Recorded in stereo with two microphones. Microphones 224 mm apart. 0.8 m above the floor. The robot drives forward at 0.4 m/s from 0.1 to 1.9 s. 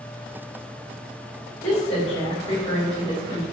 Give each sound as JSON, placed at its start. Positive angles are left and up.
{"t": 1.6, "sound": "a woman speaking", "side_deg": 25, "distance_m": 1.8}